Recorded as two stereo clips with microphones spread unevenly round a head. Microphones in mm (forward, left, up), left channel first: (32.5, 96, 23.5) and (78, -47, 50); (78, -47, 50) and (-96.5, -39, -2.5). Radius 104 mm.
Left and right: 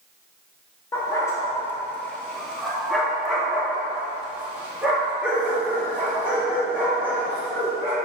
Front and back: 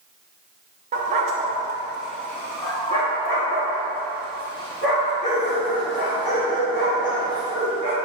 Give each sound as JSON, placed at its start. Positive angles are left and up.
{"t": 0.9, "sound": "a dog barking", "azimuth_deg": 180, "distance_m": 1.0}